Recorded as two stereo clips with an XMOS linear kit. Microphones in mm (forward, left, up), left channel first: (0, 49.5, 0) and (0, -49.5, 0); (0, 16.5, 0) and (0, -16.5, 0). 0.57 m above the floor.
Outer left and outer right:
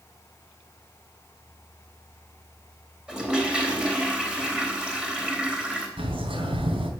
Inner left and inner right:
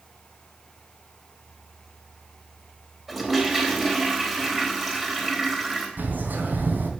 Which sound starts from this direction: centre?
A toilet flushing, at 3.1 s.